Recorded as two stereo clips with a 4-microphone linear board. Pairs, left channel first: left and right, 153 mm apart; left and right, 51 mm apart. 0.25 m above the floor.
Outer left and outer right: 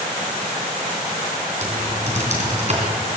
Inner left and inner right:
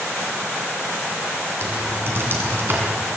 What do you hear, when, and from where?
1.6 s typing on a keyboard: 50° right (ahead or behind), 2.5 m